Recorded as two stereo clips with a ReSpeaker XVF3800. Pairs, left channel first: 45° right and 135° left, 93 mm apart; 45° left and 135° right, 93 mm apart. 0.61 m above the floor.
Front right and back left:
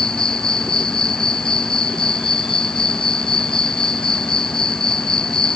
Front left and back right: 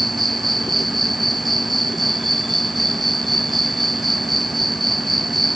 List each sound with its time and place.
0.0 s an insect: 45° right